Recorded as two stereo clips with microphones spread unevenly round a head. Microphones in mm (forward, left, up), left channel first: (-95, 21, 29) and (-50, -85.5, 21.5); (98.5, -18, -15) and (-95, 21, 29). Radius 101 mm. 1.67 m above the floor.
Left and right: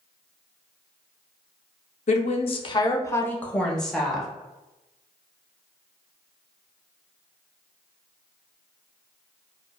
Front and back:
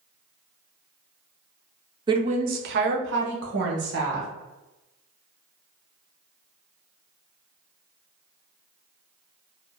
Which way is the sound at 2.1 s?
110° left.